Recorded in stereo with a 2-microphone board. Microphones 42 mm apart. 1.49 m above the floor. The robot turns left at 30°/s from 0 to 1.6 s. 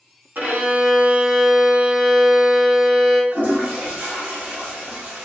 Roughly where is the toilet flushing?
Right.